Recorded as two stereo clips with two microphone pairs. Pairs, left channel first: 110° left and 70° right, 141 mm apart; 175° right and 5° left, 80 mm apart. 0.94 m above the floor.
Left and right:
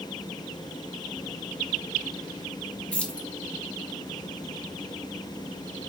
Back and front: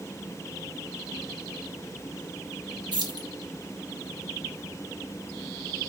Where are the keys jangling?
30° left, 0.8 m.